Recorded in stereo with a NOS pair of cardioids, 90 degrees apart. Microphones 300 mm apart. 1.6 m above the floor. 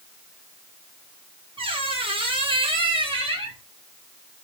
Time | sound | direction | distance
1.6 | a squeak | 20° right | 1.3 m